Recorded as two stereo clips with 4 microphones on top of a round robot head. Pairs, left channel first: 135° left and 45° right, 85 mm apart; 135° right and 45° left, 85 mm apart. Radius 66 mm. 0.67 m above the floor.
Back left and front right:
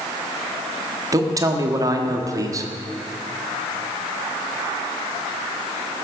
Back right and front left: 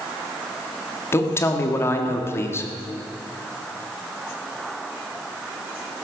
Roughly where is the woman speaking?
Right.